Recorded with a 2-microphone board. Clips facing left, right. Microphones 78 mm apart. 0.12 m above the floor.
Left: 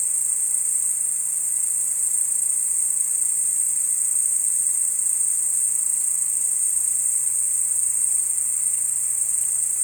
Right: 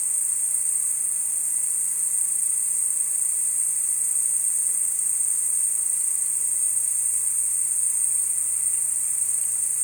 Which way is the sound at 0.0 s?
20° left (ahead or behind).